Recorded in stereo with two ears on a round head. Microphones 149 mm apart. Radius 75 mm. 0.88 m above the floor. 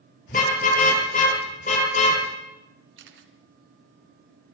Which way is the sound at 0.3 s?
50° left (ahead or behind).